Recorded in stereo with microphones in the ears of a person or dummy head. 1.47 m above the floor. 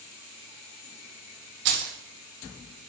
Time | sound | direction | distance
1.6 | keys jangling | 60° right (ahead or behind) | 0.9 m